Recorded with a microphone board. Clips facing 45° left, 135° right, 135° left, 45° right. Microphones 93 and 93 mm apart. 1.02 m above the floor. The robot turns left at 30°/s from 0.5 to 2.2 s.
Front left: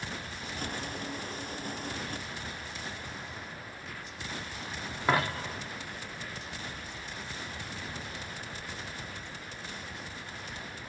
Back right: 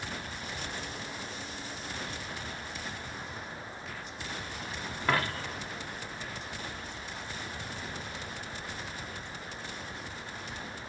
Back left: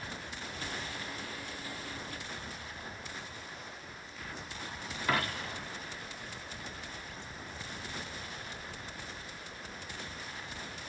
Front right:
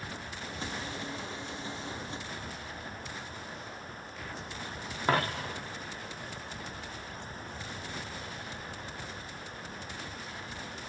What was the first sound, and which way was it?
A dropped coin, 20° right.